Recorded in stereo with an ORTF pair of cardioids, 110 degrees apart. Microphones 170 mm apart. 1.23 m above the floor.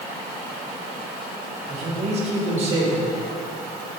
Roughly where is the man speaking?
Ahead right.